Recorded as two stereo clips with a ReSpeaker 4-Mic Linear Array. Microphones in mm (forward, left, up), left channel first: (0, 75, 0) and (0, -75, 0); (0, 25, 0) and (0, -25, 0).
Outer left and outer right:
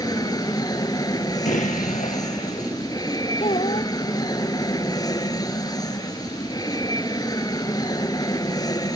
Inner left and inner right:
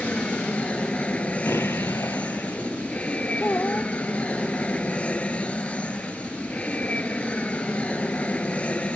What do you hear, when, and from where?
0.0 s an aircraft: 25° left (ahead or behind)
1.4 s an explosion: 60° left (ahead or behind)
3.4 s a child speaking: 40° left (ahead or behind)